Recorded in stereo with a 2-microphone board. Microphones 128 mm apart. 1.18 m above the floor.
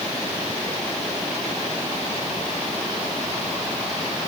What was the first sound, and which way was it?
Only background noise.